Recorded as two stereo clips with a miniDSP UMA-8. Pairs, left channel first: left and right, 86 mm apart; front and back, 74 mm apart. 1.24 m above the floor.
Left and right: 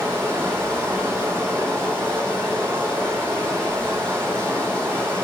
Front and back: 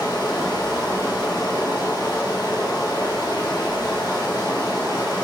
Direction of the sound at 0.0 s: 25° right.